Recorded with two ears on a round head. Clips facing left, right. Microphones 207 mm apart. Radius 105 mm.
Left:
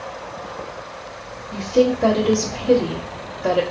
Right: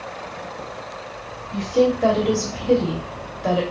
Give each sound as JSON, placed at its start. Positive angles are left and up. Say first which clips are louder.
{"t": 1.5, "sound": "a woman speaking", "louder": "left 1 dB", "side_deg": 10, "distance_m": 1.4}